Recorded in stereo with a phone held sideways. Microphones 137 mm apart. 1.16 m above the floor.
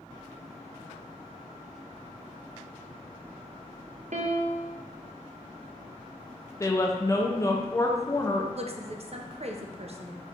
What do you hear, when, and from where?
4.1 s a piano: 60° right (ahead or behind), 0.6 m
6.6 s a woman speaking: 25° left (ahead or behind), 0.6 m
8.5 s a woman speaking: 50° right (ahead or behind), 0.5 m